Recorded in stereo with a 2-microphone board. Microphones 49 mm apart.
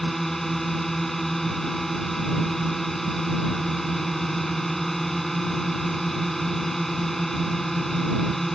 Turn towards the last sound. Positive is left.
turn(degrees=5)  # may be behind; listen again after turning